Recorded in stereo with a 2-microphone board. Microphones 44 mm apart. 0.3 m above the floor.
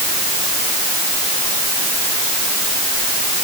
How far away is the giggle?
I don't hear a giggle.